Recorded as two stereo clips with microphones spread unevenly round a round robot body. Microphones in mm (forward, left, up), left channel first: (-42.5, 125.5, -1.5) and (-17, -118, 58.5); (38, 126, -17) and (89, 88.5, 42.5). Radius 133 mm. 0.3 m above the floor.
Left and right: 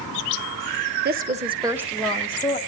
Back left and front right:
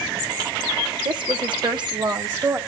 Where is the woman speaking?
80° right, 1.0 m; by 2.6 s 30° left, 1.6 m.